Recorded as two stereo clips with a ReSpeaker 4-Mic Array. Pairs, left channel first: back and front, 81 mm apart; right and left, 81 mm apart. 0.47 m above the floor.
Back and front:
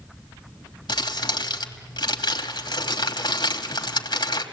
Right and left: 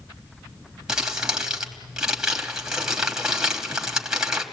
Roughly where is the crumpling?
Behind.